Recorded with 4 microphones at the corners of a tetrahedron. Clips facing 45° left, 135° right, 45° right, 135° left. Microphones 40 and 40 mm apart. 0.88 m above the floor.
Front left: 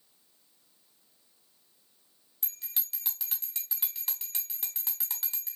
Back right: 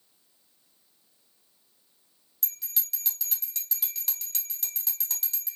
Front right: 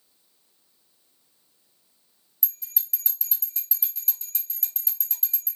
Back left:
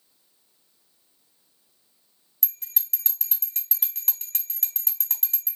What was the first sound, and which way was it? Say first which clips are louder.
A bell: back right 3 dB, back left 1 dB; 110° left.